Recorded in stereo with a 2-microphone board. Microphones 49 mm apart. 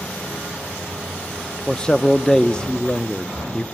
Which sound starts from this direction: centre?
A man speaking, at 1.7 s.